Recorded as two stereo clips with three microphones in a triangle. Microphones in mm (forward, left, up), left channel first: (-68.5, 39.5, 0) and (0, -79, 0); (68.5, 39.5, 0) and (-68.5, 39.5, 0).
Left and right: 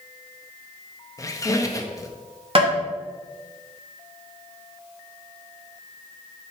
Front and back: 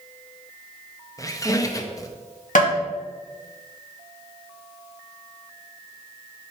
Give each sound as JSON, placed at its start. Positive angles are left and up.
{"t": 1.2, "sound": "a squeak", "azimuth_deg": 60, "distance_m": 0.6}
{"t": 2.5, "sound": "tapping", "azimuth_deg": -15, "distance_m": 2.5}